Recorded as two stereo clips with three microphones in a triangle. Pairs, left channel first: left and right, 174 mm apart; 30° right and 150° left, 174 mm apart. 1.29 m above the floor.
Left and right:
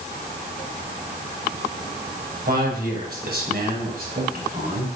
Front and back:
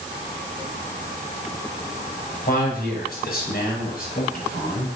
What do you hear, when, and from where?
2.5 s a man speaking: 65° right, 6 m; by 4.9 s 55° right, 5 m